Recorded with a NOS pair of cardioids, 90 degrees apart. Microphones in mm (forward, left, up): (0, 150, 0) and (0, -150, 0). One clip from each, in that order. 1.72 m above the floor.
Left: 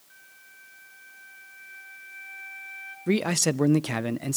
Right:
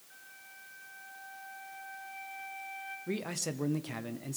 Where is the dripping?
No dripping in this recording.